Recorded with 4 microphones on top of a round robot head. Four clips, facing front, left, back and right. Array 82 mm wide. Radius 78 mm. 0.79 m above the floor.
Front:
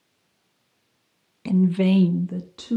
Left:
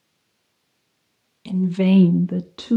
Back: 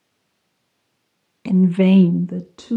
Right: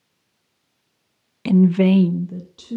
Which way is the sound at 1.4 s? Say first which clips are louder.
Right 4 dB, back 5 dB; 100° right.